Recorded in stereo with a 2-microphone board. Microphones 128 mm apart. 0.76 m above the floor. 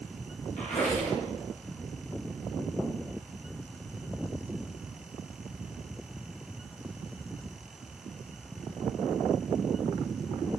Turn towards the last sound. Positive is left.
turn(degrees=70)  # may be behind; listen again after turning